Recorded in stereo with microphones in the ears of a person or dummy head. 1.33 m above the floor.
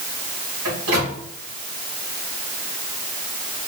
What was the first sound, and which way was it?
A microwave, 85° right.